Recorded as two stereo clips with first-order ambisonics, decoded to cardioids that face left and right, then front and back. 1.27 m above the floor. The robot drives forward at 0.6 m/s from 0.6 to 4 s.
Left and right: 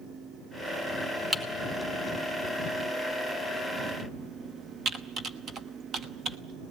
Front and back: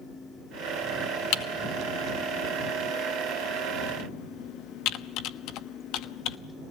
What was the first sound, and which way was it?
Typing on a keyboard, 10° right.